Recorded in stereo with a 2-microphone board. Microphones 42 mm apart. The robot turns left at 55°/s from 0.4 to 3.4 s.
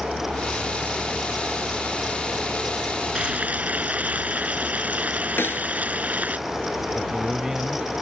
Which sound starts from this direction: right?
Frying, at 3.1 s.